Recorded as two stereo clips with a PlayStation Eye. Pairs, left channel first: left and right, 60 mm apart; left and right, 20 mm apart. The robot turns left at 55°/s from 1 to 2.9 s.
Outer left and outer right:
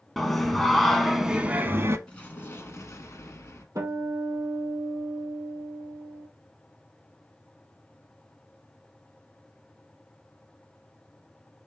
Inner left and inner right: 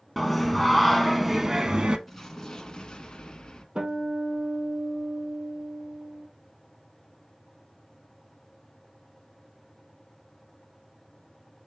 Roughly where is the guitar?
Right.